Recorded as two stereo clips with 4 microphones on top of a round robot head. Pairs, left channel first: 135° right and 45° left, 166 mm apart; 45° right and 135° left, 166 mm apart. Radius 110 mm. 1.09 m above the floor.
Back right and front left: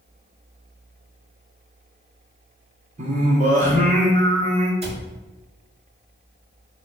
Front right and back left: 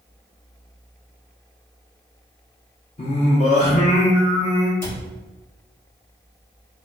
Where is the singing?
5° left, 0.9 m.